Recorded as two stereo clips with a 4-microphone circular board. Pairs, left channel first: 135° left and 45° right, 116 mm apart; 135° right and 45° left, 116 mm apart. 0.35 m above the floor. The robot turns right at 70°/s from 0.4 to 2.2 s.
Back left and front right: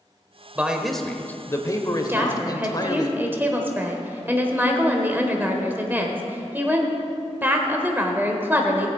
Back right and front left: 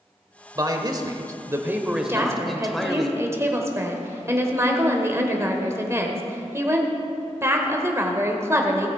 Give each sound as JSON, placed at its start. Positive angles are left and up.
{"t": 0.6, "sound": "a man speaking", "azimuth_deg": 20, "distance_m": 1.2}
{"t": 2.1, "sound": "a woman speaking", "azimuth_deg": 0, "distance_m": 1.5}